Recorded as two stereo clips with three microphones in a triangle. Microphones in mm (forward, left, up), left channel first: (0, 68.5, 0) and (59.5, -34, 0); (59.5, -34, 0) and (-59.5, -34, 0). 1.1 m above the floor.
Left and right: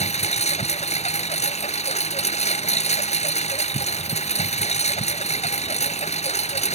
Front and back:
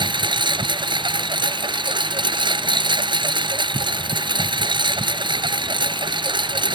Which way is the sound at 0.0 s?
135° left.